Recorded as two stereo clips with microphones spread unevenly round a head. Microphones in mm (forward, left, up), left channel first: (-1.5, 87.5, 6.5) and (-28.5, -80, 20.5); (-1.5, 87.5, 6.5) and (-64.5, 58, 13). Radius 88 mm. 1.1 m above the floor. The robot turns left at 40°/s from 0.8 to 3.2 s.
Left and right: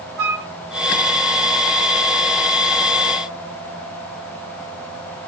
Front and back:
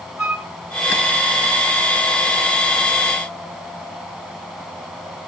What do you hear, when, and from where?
0.2 s a flute: 80° right, 2.5 m